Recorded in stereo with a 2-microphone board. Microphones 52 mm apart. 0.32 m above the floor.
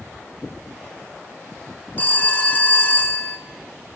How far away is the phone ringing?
About 1.7 m.